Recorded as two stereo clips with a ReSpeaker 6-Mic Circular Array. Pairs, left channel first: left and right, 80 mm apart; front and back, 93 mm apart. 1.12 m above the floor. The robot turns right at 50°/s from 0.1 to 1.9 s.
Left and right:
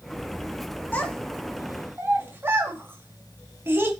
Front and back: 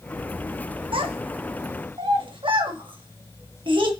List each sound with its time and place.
0.9 s a child speaking: 160° left, 1.4 m; by 3.9 s 155° right, 1.4 m